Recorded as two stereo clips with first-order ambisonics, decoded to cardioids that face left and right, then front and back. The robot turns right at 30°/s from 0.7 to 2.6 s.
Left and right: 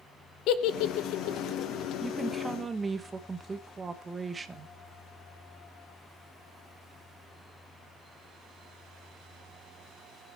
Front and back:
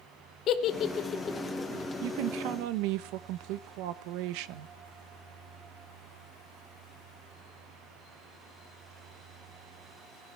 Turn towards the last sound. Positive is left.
turn(degrees=-165)